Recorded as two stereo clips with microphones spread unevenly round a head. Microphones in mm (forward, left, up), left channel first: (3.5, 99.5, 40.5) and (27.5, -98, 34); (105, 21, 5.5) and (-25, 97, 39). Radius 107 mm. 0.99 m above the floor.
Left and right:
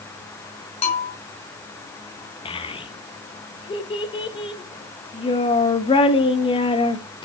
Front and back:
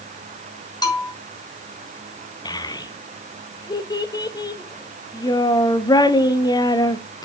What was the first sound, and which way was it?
A bell, 35° left.